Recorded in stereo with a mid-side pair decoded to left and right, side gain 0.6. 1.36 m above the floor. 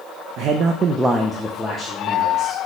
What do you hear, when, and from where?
0.4 s a man speaking: 65° right, 0.5 m; by 2.6 s 35° left, 1.3 m